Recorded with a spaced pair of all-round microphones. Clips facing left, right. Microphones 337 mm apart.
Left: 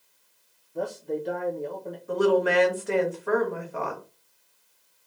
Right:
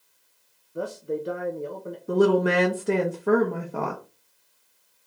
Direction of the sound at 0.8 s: 10° right (ahead or behind).